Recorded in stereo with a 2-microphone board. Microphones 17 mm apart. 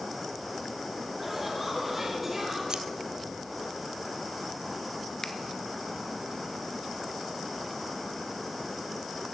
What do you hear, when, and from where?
1.2 s laughter: 15° right (ahead or behind), 4.5 m; by 2.6 s 25° right (ahead or behind), 4.5 m
2.7 s scissors: 45° right (ahead or behind), 0.8 m
5.2 s a finger snap: 30° left (ahead or behind), 1.1 m